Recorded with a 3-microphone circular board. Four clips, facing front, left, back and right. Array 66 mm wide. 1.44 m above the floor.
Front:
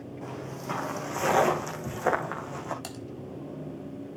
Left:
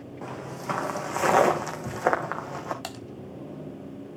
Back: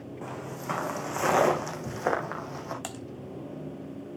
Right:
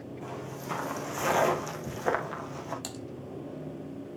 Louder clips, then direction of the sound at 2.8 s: Left 3 dB, back 1 dB; 120° left.